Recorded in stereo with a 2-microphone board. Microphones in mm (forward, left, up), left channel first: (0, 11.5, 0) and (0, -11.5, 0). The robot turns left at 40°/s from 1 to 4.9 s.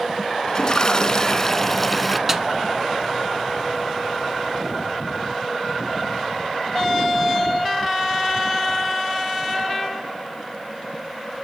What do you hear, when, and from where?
0.5 s a toilet flushing: 45° left, 0.9 m; by 2.2 s straight ahead, 0.9 m
2.3 s a snare drum: 20° right (ahead or behind), 1.0 m; by 2.5 s 15° right (ahead or behind), 1.0 m